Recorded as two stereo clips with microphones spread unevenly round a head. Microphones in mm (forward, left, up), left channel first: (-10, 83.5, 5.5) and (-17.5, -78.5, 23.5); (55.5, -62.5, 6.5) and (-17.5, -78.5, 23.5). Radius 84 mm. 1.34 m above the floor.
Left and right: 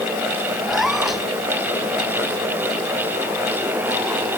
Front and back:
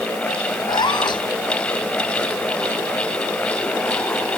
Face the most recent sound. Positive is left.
turn(degrees=-5)